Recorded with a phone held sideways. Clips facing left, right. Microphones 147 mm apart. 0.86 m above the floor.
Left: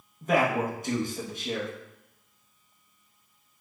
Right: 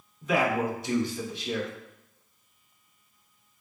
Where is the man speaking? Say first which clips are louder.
Left 1 dB; 50° left (ahead or behind), 0.7 m.